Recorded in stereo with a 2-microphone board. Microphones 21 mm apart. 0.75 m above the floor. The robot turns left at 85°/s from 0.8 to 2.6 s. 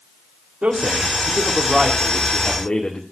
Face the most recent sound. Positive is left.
turn(degrees=125)